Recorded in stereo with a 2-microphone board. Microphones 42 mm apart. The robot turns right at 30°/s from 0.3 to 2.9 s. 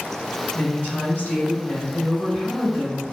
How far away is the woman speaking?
About 1.4 m.